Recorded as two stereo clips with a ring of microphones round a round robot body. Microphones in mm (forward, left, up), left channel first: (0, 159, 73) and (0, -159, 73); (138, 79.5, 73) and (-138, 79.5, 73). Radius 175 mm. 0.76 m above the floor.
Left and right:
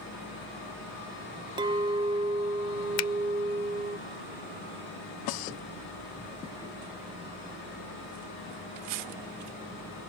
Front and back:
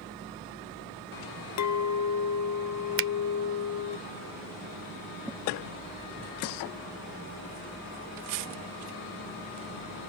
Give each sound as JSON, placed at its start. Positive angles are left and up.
{"t": 1.6, "sound": "a clink", "azimuth_deg": -15}
{"t": 3.0, "sound": "a finger snap", "azimuth_deg": 135}